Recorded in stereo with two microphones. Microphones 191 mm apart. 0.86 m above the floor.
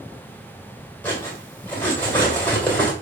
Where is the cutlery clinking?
10° left (ahead or behind), 2.5 m.